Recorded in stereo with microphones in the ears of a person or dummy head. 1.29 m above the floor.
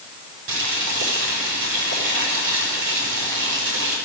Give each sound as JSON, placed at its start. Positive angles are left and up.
{"t": 0.5, "sound": "boiling", "side_deg": -80, "distance_m": 5.5}